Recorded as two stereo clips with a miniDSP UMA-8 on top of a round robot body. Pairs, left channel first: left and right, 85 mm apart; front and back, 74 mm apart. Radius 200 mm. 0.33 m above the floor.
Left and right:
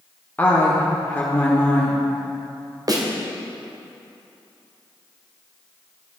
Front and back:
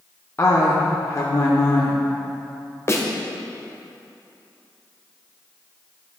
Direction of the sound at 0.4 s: 30° left.